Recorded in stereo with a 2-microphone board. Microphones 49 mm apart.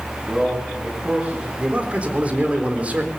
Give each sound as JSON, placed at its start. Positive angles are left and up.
{"t": 0.2, "sound": "a man speaking", "side_deg": -25, "distance_m": 7.0}
{"t": 1.6, "sound": "a man speaking", "side_deg": -30, "distance_m": 3.5}